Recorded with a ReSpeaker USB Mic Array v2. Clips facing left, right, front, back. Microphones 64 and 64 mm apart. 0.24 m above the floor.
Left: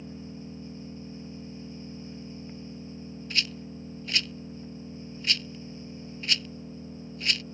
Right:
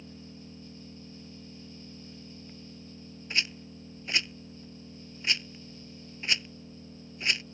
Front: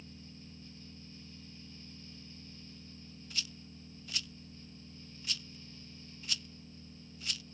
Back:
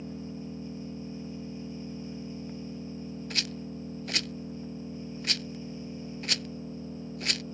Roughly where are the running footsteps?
I don't hear running footsteps.